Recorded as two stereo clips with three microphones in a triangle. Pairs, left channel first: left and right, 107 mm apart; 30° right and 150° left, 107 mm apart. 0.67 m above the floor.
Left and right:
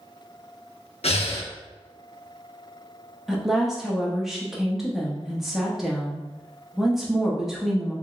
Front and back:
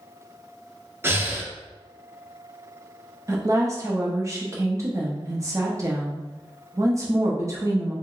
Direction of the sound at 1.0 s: 85° left.